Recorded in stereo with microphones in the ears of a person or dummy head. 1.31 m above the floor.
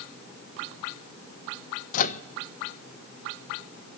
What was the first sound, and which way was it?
A microwave, 45° left (ahead or behind).